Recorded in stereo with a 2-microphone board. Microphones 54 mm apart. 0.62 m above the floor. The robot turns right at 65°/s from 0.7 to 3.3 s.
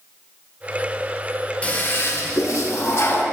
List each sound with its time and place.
1.6 s a toilet flushing: 25° left, 0.9 m; by 3.2 s 130° left, 0.9 m